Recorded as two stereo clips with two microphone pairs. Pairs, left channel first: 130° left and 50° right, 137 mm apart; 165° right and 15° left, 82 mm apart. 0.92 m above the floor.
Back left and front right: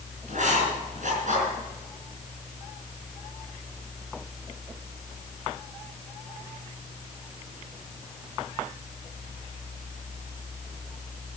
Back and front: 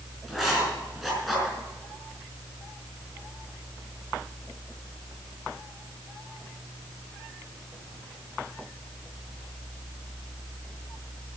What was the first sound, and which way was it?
Writing, 75° right.